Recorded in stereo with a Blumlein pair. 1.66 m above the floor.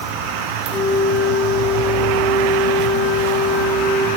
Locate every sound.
0.7 s a flute: 25° left, 1.5 m